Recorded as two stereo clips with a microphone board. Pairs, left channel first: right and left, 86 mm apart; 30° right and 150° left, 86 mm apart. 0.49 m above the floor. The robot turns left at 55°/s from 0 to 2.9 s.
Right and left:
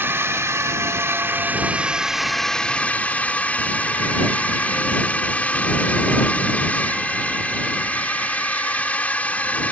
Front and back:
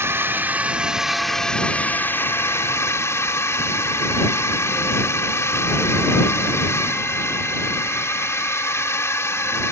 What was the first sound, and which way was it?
A drone, 125° left.